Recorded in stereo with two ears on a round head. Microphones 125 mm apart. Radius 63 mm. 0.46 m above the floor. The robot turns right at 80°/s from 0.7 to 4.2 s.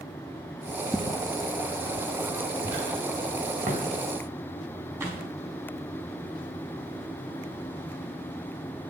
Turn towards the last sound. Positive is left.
turn(degrees=-15)  # may be behind; listen again after turning